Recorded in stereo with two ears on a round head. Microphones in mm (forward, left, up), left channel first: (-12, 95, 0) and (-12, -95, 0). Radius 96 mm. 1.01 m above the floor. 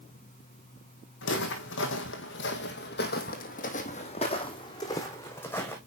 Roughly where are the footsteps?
Left.